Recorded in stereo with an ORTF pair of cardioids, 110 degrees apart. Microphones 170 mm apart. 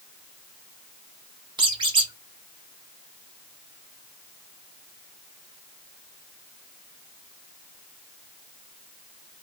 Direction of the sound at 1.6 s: 30° right.